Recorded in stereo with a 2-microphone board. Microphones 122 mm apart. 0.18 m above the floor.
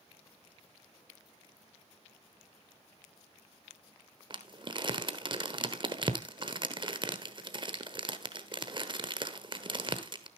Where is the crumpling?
40° right (ahead or behind), 1.2 m.